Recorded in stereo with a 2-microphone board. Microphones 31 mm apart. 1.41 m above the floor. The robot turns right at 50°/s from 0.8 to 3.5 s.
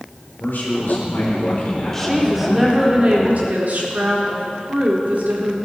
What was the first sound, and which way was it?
A man speaking, 90° left.